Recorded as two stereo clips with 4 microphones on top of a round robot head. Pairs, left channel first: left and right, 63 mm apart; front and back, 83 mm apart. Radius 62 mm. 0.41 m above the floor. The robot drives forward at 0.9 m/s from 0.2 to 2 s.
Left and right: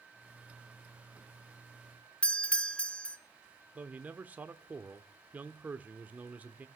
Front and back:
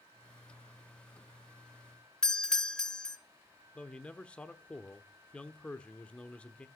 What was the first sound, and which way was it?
A doorbell, 70° left.